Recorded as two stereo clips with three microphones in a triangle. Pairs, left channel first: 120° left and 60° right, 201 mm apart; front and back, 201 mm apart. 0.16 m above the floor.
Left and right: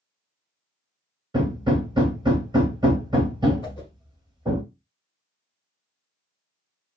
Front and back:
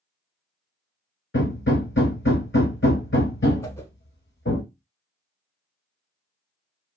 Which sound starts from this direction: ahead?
Hammering, at 1.3 s.